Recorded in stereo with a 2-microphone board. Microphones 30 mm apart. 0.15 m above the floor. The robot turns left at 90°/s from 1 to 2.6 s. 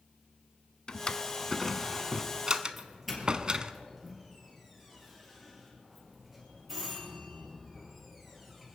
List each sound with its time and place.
0.9 s a drawer: 30° left (ahead or behind), 0.5 m; by 3.7 s 30° right (ahead or behind), 0.5 m
2.8 s a doorbell: centre (ahead or behind), 4.5 m